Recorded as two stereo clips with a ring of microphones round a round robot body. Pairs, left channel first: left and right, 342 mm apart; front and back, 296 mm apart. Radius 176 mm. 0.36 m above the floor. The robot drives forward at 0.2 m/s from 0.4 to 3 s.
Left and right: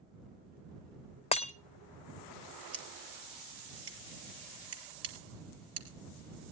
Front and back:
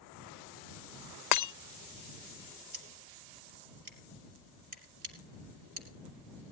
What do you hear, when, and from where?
1.3 s breaking glass: 20° left, 0.7 m
2.7 s scissors: 140° right, 3.5 m